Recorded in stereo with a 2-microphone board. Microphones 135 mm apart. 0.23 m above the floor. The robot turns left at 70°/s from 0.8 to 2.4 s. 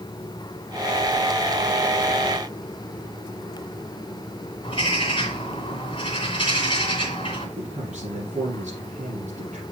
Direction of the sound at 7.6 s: 65° right (ahead or behind).